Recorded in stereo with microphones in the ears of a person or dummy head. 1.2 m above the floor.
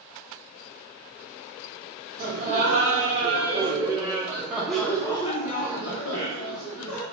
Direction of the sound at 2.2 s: 40° right (ahead or behind).